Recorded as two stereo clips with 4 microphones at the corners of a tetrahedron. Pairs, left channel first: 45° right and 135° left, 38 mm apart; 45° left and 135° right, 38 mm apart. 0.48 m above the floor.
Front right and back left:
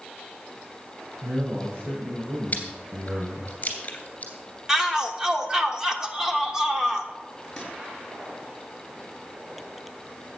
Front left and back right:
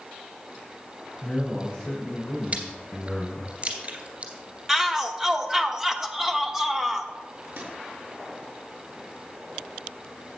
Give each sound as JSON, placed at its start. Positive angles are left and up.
{"t": 1.2, "sound": "a man speaking", "azimuth_deg": 130, "distance_m": 5.0}
{"t": 2.5, "sound": "chewing", "azimuth_deg": -90, "distance_m": 2.5}
{"t": 4.7, "sound": "a shout", "azimuth_deg": 175, "distance_m": 1.0}
{"t": 7.4, "sound": "a microwave", "azimuth_deg": -130, "distance_m": 5.0}